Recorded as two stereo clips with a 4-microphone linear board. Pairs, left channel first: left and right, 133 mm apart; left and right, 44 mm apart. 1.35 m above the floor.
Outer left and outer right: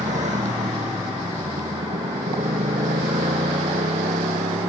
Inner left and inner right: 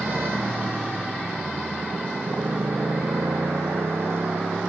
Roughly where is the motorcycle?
Right.